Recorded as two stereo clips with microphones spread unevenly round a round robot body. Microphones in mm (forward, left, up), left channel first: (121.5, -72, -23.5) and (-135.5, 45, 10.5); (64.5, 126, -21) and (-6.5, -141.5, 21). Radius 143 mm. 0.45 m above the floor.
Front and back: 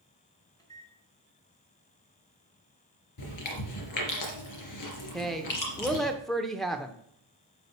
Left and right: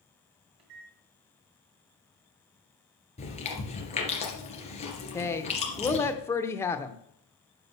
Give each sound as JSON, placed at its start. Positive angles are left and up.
{"t": 0.6, "sound": "a microwave", "azimuth_deg": -100, "distance_m": 2.5}
{"t": 3.2, "sound": "chewing", "azimuth_deg": 5, "distance_m": 3.0}
{"t": 5.1, "sound": "a woman speaking", "azimuth_deg": 45, "distance_m": 0.8}